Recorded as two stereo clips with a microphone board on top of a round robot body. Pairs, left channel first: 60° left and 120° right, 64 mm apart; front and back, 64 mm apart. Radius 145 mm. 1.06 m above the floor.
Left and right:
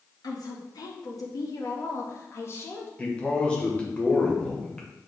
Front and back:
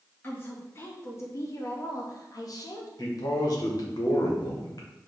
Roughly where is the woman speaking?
Ahead left.